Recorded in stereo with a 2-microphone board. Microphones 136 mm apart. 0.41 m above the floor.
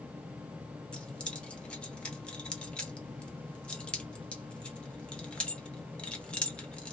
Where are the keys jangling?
5° left (ahead or behind), 0.8 m.